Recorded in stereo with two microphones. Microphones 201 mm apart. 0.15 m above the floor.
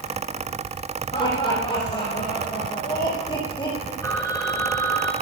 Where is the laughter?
25° left (ahead or behind), 9 m.